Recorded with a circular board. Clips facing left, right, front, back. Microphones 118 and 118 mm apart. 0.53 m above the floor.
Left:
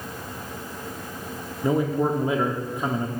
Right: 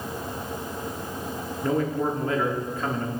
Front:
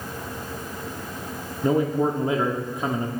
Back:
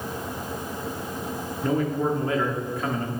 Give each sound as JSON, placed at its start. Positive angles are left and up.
{"t": 1.6, "sound": "a man speaking", "azimuth_deg": 35, "distance_m": 0.7}